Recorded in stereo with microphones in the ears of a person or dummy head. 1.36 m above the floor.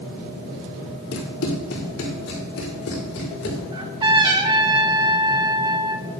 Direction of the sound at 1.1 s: 65° left (ahead or behind).